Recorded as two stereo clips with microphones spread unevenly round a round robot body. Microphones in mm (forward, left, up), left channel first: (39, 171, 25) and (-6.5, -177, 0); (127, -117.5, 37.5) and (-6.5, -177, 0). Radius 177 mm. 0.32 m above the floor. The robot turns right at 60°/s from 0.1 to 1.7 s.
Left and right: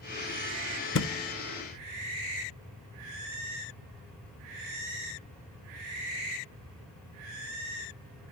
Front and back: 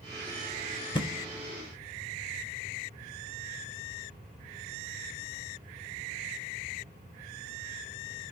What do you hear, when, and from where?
0.9 s a thud: 85° left, 0.5 m; by 1.1 s 95° left, 0.5 m